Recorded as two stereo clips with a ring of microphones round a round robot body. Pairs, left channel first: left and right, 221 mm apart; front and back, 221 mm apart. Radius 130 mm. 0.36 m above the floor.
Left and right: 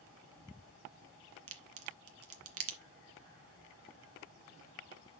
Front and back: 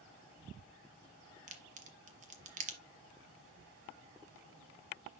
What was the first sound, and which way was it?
A crack, 120° right.